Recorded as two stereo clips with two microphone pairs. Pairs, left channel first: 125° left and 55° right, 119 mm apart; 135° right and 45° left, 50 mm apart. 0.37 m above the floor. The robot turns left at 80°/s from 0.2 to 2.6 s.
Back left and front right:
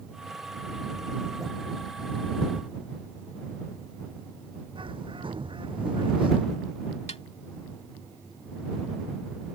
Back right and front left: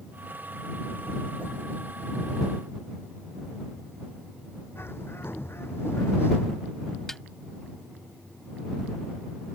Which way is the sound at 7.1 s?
140° left.